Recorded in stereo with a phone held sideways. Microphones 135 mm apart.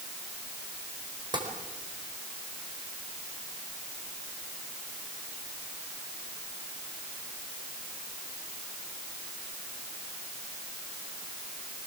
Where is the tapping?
35° right (ahead or behind), 4.5 m.